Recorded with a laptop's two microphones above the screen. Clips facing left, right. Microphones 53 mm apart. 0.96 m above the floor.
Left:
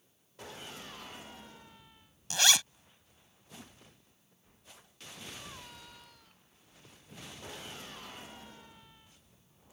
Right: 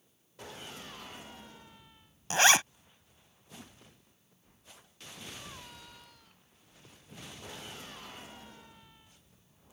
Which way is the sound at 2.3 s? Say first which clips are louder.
Right 5 dB; 35° right (ahead or behind).